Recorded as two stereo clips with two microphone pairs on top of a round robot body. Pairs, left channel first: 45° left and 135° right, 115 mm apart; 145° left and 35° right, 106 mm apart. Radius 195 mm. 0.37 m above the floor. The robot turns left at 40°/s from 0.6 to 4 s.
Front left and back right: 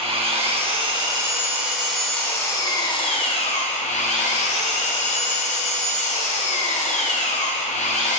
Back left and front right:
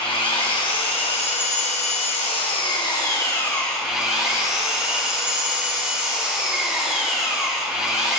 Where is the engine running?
175° right, 1.5 m; by 8.2 s 50° left, 1.5 m.